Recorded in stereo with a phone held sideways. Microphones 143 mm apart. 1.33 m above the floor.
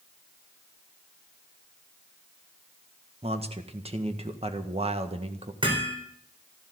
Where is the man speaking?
45° right (ahead or behind), 1.7 m.